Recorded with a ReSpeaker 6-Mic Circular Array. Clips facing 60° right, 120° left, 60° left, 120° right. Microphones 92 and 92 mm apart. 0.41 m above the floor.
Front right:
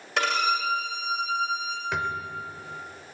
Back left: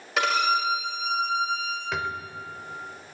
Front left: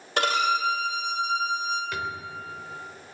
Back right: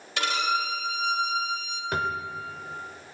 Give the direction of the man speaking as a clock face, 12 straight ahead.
I don't hear a man speaking.